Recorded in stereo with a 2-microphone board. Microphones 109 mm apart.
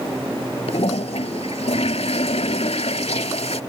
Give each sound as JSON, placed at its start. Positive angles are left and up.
{"t": 0.7, "sound": "a toilet flushing", "side_deg": 75}